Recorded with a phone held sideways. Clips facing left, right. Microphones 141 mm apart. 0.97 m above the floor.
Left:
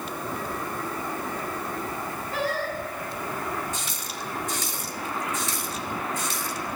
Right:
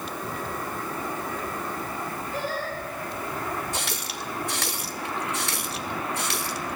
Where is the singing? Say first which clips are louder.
Left 4 dB; 80° left, 4 m.